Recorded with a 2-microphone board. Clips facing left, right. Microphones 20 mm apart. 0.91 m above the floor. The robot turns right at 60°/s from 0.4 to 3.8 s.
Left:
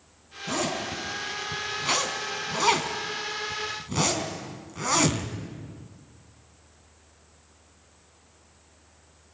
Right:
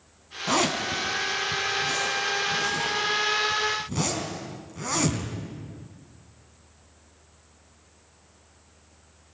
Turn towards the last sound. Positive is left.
turn(degrees=15)  # may be behind; listen again after turning